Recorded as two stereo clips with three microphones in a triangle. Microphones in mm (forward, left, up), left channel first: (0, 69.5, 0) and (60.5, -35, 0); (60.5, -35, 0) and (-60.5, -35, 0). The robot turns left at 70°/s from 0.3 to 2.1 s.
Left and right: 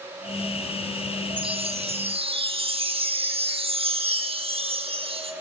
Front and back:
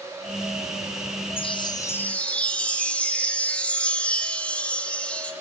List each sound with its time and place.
1.4 s a chime: 25° right, 0.7 m; by 5.3 s 75° right, 0.7 m